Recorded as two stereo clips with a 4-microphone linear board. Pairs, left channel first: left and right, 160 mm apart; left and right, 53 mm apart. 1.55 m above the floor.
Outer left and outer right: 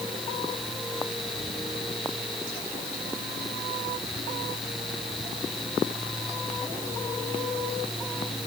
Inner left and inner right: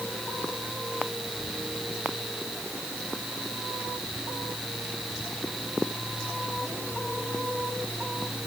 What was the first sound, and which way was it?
Only background noise.